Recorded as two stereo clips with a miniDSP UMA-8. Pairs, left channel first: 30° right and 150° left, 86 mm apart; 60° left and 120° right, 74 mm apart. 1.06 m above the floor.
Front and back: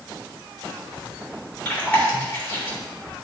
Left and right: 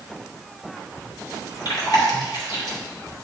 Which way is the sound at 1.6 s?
40° left.